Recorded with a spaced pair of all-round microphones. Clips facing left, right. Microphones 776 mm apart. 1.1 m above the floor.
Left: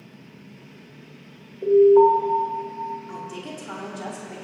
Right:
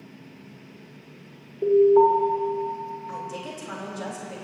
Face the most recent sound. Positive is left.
turn(degrees=-15)  # may be behind; listen again after turning